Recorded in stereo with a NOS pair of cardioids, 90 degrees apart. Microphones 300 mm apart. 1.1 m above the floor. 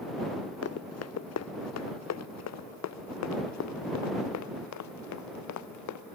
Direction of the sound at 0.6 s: 55° left.